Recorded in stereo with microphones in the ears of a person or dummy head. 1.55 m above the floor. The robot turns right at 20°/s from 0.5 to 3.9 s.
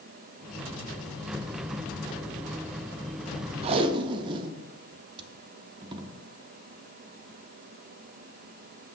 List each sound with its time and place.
3.6 s tape being pulled: 30° right (ahead or behind), 0.5 m